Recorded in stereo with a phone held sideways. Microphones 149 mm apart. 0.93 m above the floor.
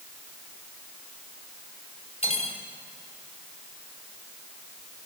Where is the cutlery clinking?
40° left (ahead or behind), 3.5 m.